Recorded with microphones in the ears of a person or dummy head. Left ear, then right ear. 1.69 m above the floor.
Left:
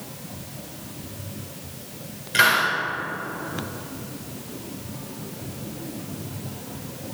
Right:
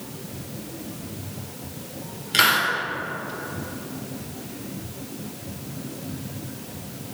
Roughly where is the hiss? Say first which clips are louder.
Left 1 dB; right.